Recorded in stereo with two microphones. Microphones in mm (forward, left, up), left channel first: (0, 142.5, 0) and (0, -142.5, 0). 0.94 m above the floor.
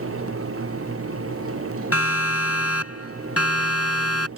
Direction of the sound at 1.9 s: 60° left (ahead or behind).